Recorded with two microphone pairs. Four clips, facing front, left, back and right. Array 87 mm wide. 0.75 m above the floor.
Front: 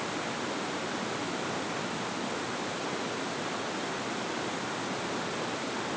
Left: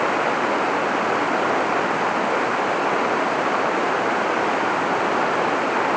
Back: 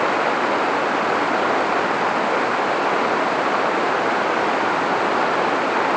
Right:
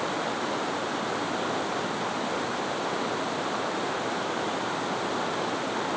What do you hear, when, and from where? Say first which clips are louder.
0.0 s running water: left 9 dB, back 15 dB; 150° left